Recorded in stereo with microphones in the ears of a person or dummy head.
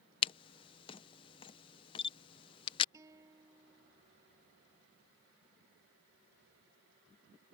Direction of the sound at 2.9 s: 20° right (ahead or behind).